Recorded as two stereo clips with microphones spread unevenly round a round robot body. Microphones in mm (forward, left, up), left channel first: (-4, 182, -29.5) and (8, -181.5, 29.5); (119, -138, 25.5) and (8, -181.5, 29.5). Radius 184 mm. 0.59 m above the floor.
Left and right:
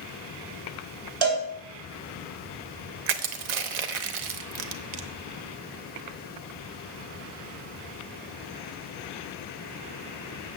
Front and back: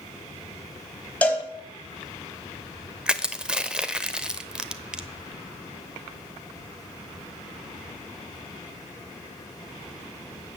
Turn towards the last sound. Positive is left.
turn(degrees=-75)